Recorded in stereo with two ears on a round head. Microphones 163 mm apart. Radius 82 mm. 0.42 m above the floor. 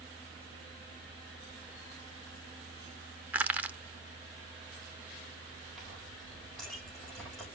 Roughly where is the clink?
Centre.